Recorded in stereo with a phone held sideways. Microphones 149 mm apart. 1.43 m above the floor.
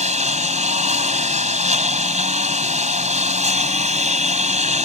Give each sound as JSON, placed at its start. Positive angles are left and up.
{"t": 0.0, "sound": "a lawn mower", "side_deg": -55}